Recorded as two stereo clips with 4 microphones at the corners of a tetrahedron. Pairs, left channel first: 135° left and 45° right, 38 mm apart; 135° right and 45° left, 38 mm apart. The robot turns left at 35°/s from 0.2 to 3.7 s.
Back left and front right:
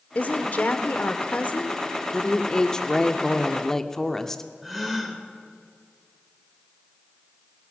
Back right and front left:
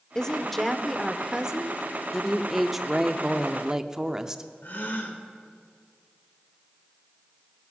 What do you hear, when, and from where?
0.1 s a woman speaking: 155° left, 1.0 m; by 1.8 s 100° left, 1.0 m
2.1 s a woman speaking: 135° left, 0.7 m; by 4.4 s 80° left, 0.7 m
4.6 s a gasp: 135° right, 1.6 m